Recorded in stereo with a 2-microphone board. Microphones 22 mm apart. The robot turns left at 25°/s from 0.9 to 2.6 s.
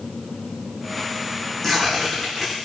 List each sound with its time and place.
1.6 s tearing paper: 5° left (ahead or behind), 2.5 m; by 2.5 s 20° right (ahead or behind), 2.5 m